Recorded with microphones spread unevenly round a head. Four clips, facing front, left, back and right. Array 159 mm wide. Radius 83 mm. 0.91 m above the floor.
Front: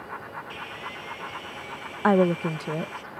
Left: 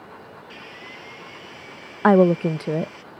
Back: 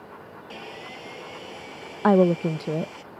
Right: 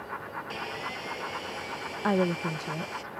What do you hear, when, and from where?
0.5 s sawing: 140° right
2.0 s a woman speaking: 100° left